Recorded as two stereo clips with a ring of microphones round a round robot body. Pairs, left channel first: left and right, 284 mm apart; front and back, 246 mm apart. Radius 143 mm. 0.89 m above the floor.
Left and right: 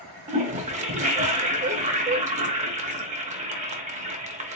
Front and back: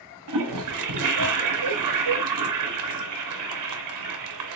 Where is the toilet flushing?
155° right, 0.6 m.